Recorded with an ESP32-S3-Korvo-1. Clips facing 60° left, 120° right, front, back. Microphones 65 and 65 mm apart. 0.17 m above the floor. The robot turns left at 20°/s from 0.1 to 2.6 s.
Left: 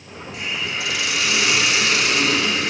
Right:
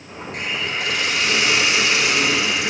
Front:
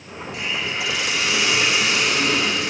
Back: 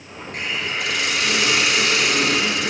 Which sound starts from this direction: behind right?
A hiss, at 0.3 s.